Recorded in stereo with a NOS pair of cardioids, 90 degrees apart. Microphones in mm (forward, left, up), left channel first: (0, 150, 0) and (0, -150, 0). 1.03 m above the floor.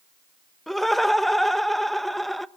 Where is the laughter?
Straight ahead, 0.5 m.